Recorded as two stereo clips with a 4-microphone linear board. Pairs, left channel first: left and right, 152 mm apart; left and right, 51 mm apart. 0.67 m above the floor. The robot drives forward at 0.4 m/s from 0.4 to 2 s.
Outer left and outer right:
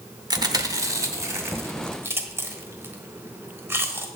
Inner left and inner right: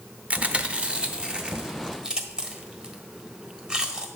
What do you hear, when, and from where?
0.3 s chewing: 25° right (ahead or behind), 0.9 m; by 4.1 s 15° right (ahead or behind), 1.5 m